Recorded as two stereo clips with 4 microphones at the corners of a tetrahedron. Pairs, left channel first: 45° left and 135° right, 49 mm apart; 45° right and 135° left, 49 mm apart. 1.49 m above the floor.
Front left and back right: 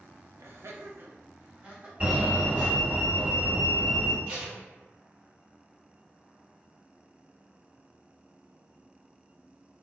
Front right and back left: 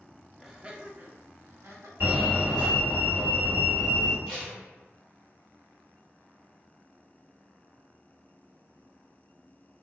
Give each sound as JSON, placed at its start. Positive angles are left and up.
{"t": 0.4, "sound": "laughter", "azimuth_deg": -140, "distance_m": 0.6}
{"t": 2.0, "sound": "a fire alarm", "azimuth_deg": 170, "distance_m": 1.6}
{"t": 4.3, "sound": "tape being pulled", "azimuth_deg": -145, "distance_m": 1.2}